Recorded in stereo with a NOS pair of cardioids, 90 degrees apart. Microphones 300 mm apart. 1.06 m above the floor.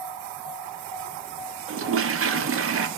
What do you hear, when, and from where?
1.7 s a toilet flushing: 45° right, 0.6 m